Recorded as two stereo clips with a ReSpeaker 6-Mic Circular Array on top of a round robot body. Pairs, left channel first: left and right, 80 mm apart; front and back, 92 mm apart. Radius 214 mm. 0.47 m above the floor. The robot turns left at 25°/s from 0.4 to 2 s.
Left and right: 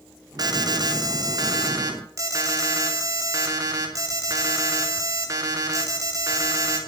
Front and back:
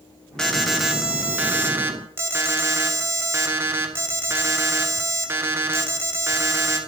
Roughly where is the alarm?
Right.